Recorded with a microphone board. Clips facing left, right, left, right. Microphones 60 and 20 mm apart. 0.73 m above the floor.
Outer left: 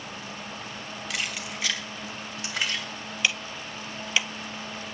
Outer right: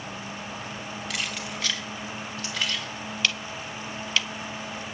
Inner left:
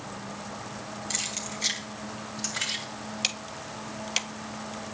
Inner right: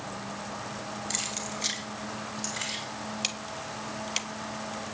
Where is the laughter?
No laughter in this recording.